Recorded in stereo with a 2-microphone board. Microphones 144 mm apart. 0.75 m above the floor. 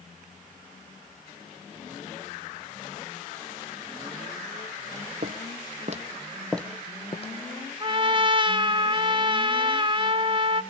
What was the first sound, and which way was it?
Footsteps, 70° right (ahead or behind).